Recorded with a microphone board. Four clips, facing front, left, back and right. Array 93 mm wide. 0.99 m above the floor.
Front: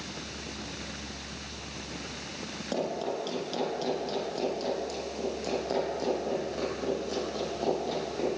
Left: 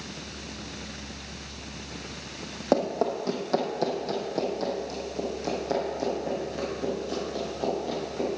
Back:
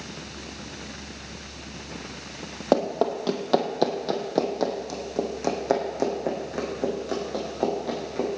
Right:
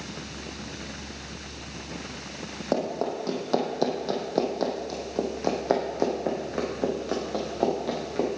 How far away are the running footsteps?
About 1.7 m.